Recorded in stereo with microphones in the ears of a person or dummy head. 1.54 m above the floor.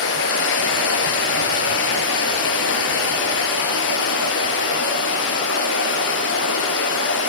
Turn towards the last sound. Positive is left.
turn(degrees=70)  # may be behind; listen again after turning